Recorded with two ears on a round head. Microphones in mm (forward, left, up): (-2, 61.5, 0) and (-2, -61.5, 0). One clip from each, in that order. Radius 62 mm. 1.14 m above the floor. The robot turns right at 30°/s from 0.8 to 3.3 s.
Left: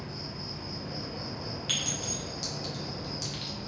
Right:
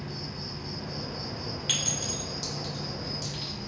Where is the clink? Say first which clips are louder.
Right 2 dB; 15° right (ahead or behind), 1.0 m; by 3.5 s 30° left (ahead or behind), 1.0 m.